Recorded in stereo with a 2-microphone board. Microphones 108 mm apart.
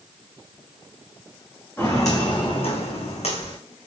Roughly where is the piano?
No piano in this recording.